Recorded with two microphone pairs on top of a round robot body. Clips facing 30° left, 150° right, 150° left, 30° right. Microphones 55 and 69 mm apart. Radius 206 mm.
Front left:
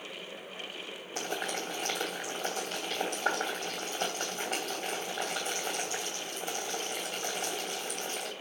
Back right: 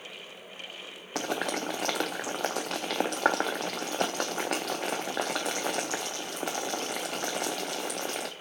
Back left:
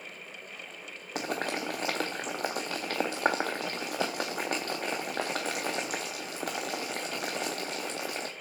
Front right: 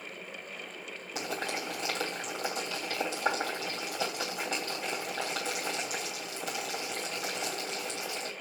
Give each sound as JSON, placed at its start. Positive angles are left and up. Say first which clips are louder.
{"t": 1.1, "sound": "boiling", "louder": "back right 5 dB, back left 3 dB", "azimuth_deg": -175, "distance_m": 0.6}